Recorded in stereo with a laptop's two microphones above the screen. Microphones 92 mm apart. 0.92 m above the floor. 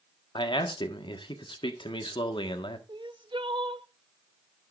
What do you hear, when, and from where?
0.3 s a man speaking: 60° left (ahead or behind), 1.5 m
2.9 s crying: 60° right (ahead or behind), 0.8 m